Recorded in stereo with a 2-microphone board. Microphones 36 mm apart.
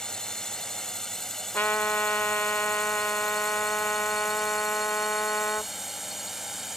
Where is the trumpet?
75° left (ahead or behind).